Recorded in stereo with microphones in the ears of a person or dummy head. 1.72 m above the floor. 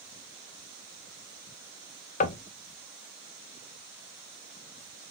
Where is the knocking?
50° left (ahead or behind), 0.7 m.